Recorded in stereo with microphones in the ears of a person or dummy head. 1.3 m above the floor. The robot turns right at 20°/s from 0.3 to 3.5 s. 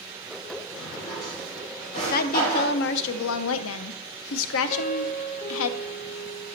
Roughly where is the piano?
Left.